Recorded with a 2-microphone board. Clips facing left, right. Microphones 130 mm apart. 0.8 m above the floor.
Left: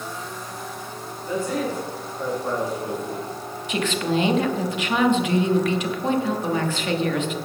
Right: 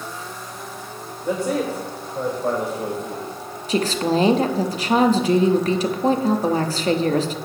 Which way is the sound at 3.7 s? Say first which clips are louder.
Right 4 dB; 35° right (ahead or behind).